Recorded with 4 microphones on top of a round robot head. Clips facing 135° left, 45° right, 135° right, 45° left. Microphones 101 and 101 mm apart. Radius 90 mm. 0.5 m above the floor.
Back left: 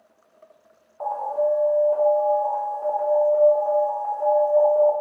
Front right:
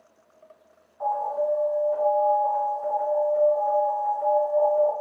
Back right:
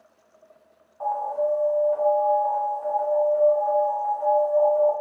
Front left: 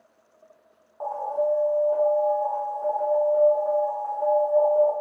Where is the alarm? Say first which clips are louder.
Back left 2 dB, back right 1 dB; 100° left, 1.2 m.